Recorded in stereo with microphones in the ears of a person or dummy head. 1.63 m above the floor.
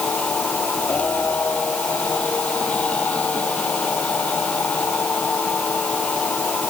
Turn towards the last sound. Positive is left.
turn(degrees=10)  # may be behind; listen again after turning